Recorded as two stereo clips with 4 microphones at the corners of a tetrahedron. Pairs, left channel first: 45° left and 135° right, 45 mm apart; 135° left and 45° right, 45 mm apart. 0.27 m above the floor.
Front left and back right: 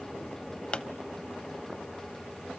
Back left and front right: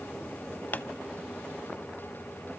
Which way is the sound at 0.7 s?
110° left.